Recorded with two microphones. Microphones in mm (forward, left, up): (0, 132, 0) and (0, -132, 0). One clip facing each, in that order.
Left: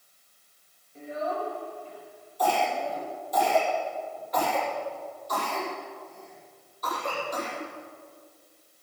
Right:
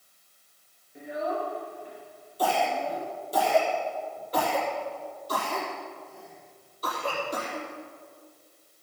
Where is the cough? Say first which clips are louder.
Even; 35° right (ahead or behind), 5 m.